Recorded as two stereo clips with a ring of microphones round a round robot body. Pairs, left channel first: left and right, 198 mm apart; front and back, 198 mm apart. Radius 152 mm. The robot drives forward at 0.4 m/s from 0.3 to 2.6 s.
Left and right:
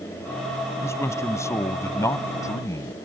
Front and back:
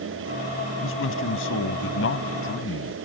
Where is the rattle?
No rattle in this recording.